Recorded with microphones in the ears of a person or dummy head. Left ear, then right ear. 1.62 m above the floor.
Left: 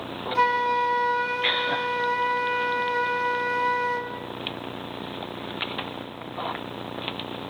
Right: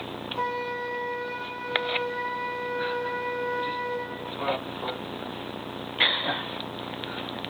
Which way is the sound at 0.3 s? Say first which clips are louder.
Left 9 dB; 70° left (ahead or behind).